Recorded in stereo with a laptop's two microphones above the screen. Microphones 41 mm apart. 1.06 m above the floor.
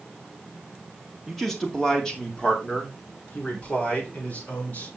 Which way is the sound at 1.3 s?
Centre (ahead or behind).